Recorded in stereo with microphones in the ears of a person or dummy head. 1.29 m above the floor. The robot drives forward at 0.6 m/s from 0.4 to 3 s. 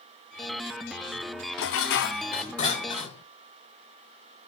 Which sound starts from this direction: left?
Dishes clattering, at 1.6 s.